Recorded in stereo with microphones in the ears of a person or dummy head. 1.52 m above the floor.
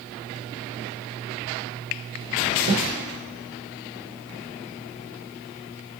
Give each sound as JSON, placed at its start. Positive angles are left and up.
{"t": 2.7, "sound": "a snare drum", "side_deg": -65, "distance_m": 1.0}